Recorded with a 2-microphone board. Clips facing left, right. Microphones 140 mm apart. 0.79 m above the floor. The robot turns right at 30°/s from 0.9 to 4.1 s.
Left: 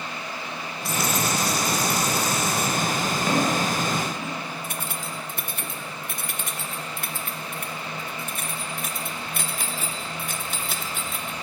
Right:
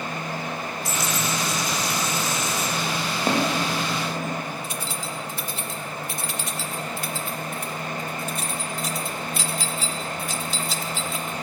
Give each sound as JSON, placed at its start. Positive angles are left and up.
{"t": 0.8, "sound": "a dropped coin", "azimuth_deg": 65, "distance_m": 5.0}
{"t": 3.3, "sound": "footsteps", "side_deg": -35, "distance_m": 4.5}
{"t": 4.6, "sound": "keys jangling", "side_deg": 55, "distance_m": 0.9}